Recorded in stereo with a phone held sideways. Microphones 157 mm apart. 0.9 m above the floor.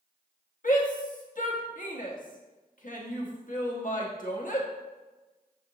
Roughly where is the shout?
Left.